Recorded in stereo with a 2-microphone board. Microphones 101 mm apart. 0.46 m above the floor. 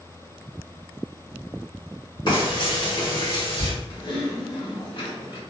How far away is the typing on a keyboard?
About 1.1 m.